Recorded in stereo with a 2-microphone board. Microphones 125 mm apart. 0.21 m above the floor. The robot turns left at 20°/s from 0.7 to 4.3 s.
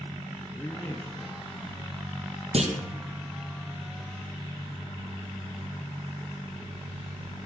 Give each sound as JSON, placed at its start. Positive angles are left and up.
{"t": 0.5, "sound": "a man speaking", "side_deg": 20, "distance_m": 4.0}
{"t": 2.5, "sound": "a clunk", "side_deg": -60, "distance_m": 2.5}